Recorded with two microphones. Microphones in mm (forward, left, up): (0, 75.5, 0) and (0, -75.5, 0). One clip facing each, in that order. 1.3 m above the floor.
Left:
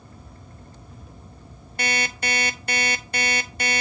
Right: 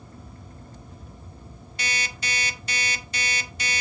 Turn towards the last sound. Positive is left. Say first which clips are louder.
# left 7 dB
turn(degrees=55)  # may be behind; listen again after turning